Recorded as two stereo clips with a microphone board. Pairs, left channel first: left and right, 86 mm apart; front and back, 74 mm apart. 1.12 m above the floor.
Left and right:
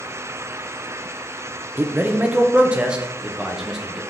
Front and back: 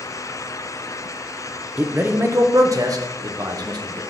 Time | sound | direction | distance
1.8 | a man speaking | 125° right | 0.7 m